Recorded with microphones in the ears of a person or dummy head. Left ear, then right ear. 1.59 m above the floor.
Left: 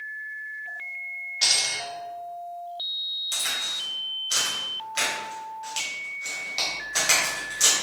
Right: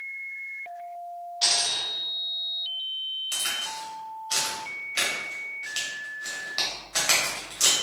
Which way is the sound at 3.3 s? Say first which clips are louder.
Left 2 dB; 15° right (ahead or behind).